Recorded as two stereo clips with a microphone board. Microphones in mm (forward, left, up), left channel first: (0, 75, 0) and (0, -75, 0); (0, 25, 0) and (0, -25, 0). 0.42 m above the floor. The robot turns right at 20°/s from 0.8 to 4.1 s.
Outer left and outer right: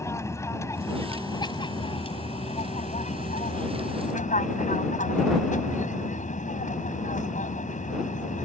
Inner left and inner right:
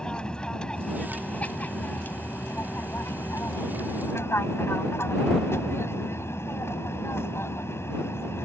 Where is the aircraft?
20° left; by 8.4 s 90° left.